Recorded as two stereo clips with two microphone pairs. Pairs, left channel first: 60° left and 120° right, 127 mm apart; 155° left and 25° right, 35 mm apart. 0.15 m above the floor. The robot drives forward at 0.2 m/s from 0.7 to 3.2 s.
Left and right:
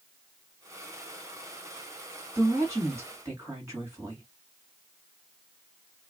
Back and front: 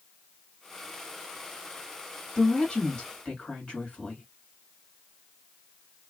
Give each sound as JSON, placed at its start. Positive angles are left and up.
{"t": 2.4, "sound": "a woman speaking", "azimuth_deg": -170, "distance_m": 1.5}